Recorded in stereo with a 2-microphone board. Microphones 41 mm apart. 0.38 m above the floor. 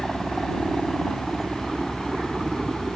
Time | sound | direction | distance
0.0 | a helicopter | centre (ahead or behind) | ?